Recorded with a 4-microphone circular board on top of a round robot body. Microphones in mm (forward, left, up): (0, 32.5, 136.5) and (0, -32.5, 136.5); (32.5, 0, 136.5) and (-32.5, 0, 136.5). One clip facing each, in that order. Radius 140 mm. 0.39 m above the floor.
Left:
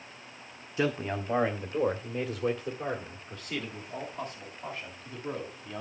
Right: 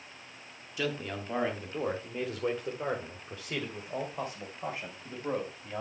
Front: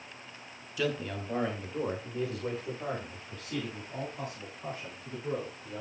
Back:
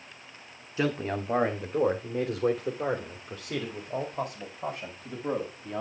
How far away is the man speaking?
About 1.4 m.